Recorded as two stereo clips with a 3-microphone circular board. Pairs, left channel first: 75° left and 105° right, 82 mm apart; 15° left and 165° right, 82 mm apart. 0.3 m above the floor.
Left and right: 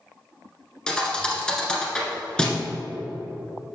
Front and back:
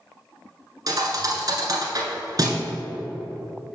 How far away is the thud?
About 1.2 m.